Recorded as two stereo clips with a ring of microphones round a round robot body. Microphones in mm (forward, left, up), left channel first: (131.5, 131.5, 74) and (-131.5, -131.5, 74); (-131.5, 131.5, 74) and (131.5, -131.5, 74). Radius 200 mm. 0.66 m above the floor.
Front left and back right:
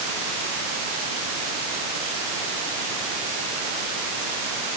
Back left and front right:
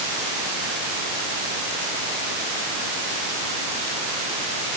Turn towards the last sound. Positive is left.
No sound to turn to.